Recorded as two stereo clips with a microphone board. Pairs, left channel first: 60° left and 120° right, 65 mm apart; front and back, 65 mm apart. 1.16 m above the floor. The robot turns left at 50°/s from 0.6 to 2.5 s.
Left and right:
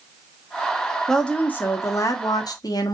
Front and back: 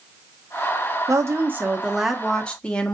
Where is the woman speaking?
145° left, 0.8 m; by 2.9 s 75° left, 0.8 m.